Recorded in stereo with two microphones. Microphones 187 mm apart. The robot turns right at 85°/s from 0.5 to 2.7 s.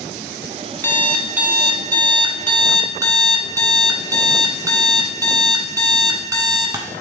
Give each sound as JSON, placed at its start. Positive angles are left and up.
{"t": 0.8, "sound": "an alarm clock", "side_deg": 15, "distance_m": 0.8}